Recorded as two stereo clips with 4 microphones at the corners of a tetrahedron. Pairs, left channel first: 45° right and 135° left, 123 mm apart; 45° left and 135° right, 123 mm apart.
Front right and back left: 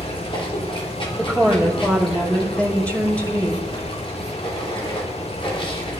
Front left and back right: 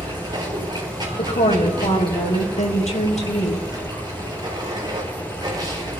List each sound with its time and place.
0.0 s running water: 85° right, 4 m
1.2 s a woman speaking: 35° left, 5 m